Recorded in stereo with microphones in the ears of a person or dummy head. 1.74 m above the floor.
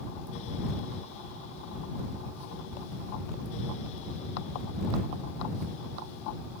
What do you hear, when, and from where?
Only background noise.